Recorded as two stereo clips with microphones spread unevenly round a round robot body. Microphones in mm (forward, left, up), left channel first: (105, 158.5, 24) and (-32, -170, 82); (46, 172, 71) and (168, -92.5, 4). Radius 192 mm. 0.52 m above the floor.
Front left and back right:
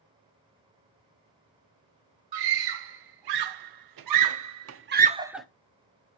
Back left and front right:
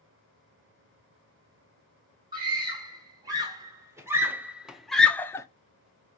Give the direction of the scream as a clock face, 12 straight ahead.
5 o'clock.